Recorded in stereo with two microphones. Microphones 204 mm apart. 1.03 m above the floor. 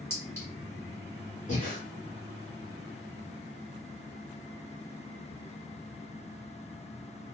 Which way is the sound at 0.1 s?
15° left (ahead or behind).